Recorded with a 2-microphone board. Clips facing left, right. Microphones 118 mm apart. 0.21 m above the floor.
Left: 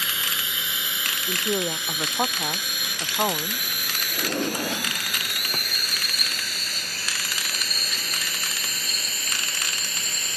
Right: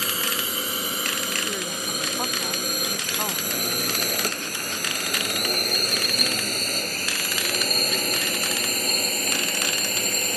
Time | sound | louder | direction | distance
0.0 | a drone | right 4 dB | 40° right (ahead or behind) | ?
1.3 | a woman speaking | left 4 dB | 35° left (ahead or behind) | ?
4.1 | a drawer | left 4 dB | 40° left (ahead or behind) | ?